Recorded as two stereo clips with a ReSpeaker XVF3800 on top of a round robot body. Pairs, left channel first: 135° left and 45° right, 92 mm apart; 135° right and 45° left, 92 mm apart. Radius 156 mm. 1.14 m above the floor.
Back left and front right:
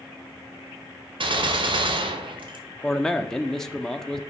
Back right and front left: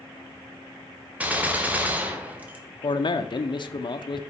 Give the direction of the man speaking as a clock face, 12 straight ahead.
5 o'clock.